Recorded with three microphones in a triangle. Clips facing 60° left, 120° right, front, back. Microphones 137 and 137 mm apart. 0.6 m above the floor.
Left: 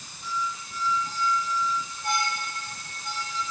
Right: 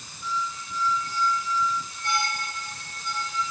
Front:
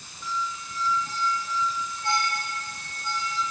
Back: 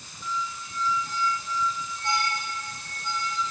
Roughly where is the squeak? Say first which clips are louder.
Right 1 dB, front 1 dB; left.